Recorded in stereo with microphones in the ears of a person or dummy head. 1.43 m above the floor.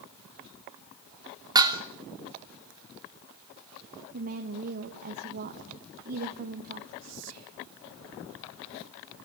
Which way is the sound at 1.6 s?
15° right (ahead or behind).